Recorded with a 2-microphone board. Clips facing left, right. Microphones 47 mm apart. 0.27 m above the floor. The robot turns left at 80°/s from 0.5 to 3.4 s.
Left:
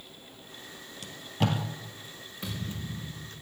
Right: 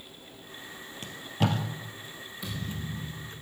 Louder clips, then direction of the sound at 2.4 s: Even; 35° left.